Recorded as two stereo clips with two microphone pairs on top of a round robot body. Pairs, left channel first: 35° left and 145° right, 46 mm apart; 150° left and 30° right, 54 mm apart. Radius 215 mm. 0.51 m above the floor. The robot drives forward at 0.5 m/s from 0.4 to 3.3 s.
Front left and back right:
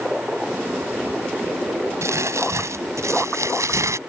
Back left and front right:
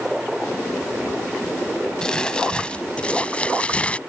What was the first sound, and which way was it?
Crumpling, 130° right.